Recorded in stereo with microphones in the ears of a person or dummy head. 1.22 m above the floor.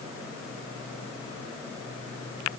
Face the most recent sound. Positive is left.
No sound to turn to.